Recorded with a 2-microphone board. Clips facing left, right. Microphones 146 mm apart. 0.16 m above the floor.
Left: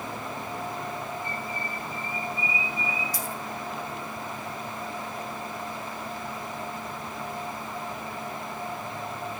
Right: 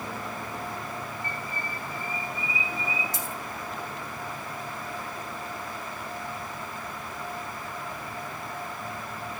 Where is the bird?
70° right (ahead or behind), 8 m.